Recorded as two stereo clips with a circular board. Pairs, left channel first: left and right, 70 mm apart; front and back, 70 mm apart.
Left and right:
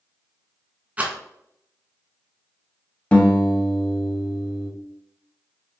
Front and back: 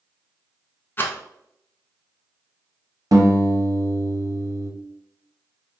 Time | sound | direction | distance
1.0 | a rattle | 35° right | 0.6 m
3.1 | a guitar | 165° left | 0.9 m